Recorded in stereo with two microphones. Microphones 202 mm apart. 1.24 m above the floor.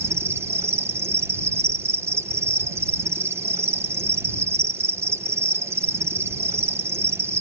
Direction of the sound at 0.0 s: 10° right (ahead or behind).